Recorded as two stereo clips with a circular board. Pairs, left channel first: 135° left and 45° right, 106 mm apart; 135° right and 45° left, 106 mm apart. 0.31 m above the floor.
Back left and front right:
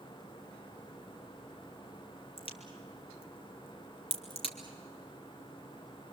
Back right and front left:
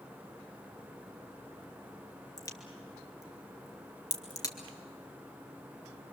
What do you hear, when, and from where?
2.4 s a crack: 165° left, 2 m